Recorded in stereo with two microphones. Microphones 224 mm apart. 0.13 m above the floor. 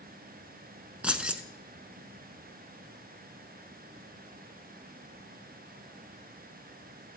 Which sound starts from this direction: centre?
Keys jangling, at 1.0 s.